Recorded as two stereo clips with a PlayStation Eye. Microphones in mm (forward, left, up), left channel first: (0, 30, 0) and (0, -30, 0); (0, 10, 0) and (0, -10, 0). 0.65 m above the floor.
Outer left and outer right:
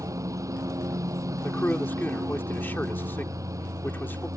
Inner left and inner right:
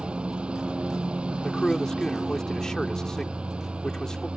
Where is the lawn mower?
65° right (ahead or behind).